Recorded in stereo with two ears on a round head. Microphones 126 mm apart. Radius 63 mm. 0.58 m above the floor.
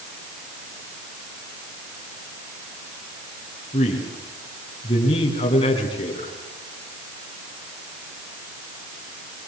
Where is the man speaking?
35° left (ahead or behind), 6 m.